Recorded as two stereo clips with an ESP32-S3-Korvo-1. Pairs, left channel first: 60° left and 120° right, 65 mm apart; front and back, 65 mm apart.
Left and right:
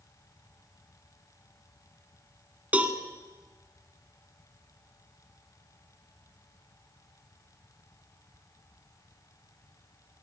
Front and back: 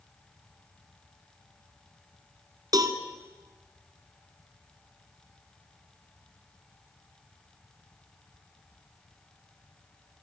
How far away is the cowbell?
About 1.6 m.